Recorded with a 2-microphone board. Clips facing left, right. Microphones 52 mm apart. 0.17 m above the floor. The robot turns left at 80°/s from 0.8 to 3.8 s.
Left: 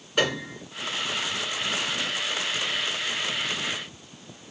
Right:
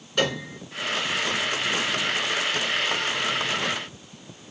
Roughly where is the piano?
Centre.